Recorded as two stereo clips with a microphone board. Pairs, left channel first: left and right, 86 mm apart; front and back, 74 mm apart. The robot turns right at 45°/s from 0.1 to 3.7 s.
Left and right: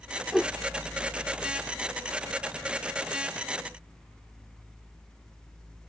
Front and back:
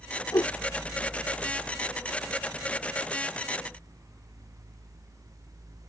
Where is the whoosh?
Straight ahead; by 0.6 s 10° left.